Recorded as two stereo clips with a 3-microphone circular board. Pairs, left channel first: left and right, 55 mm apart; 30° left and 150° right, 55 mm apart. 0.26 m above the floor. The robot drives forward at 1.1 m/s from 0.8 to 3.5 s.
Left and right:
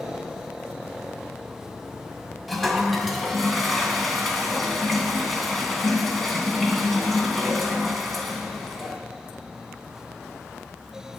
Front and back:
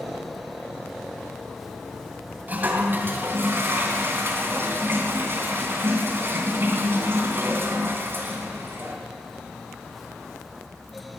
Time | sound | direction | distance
2.5 | a toilet flushing | straight behind | 1.9 m